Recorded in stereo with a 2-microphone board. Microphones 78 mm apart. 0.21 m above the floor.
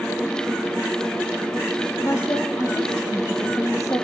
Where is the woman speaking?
45° left (ahead or behind), 9 m.